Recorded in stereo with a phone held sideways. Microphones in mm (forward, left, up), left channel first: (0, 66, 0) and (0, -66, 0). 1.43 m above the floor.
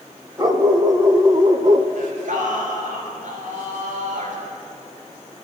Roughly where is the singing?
Right.